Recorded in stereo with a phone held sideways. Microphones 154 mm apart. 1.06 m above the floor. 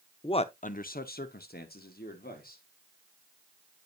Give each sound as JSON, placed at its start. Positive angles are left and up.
{"t": 0.2, "sound": "a man speaking", "side_deg": 30, "distance_m": 0.5}